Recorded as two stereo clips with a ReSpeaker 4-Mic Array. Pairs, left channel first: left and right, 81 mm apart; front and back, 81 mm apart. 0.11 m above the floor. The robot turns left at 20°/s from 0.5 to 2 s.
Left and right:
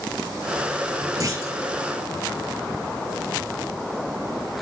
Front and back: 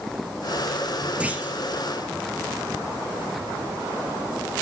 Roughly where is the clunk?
Right.